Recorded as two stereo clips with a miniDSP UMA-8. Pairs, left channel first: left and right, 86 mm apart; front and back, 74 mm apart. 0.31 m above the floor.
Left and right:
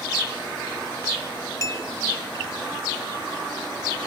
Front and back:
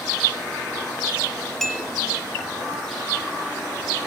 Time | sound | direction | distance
1.6 | a clink | 80° left | 0.8 m